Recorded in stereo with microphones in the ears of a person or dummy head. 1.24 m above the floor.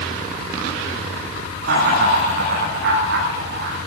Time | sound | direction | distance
1.6 | laughter | 60° right (ahead or behind) | 9.5 m